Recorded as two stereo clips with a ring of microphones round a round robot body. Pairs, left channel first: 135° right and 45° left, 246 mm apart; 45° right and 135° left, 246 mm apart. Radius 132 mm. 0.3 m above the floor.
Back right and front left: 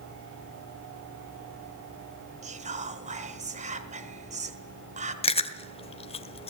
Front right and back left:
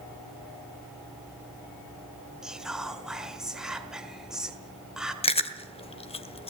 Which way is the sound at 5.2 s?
90° right.